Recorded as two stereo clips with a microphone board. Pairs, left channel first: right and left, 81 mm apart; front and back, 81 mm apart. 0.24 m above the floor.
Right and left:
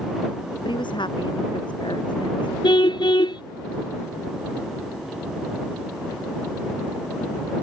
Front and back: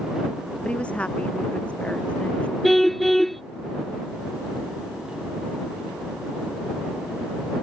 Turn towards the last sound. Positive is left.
turn(degrees=-85)